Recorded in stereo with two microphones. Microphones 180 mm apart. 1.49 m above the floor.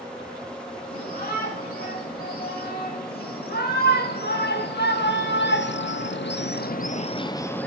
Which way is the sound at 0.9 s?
55° left (ahead or behind).